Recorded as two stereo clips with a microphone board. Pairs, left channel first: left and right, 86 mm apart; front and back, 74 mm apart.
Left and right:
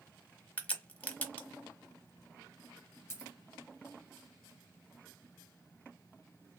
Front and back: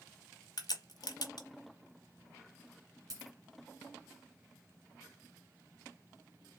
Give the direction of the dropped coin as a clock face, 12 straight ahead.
7 o'clock.